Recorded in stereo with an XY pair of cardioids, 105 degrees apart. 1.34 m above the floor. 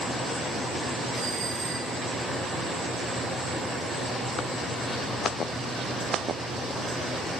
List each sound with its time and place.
1.1 s a doorbell: 70° right, 3.5 m